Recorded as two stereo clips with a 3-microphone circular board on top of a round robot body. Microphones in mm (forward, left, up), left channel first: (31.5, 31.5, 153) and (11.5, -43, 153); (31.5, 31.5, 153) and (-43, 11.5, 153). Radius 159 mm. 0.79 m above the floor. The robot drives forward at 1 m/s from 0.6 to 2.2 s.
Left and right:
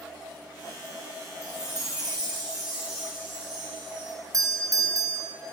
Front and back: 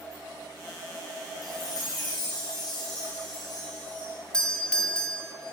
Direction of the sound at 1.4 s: 20° right.